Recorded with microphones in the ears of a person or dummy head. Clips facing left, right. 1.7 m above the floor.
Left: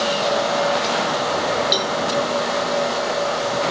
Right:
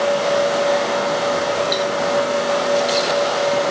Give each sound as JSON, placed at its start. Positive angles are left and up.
{"t": 1.7, "sound": "a cowbell", "side_deg": 25, "distance_m": 1.2}